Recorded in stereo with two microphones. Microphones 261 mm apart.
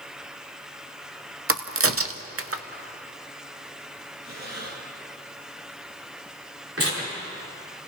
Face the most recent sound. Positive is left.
turn(degrees=-55)  # may be behind; listen again after turning